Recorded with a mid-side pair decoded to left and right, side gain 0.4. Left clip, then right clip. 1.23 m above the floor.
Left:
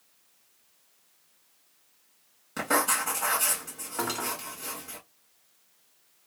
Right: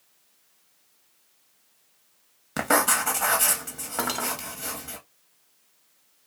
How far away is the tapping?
I don't hear tapping.